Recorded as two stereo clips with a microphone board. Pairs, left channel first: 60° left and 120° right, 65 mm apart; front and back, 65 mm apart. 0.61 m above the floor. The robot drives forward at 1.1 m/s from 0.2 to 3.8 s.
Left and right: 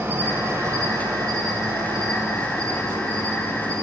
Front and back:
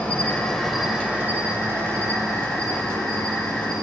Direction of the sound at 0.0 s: 65° right.